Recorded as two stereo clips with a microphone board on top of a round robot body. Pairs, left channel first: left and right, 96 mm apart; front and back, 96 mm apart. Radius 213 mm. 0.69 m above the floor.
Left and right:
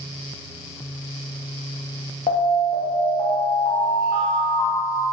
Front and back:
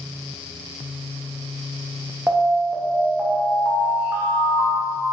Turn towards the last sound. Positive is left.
turn(degrees=110)